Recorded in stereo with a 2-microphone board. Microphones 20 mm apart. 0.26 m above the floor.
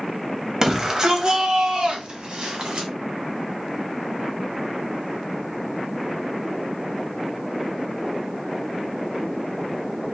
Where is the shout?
20° right (ahead or behind), 1.0 m; by 2.9 s 50° right (ahead or behind), 1.7 m.